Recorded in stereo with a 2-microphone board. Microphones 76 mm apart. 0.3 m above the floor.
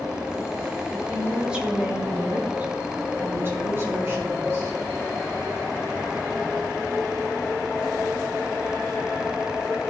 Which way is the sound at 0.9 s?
5° right (ahead or behind).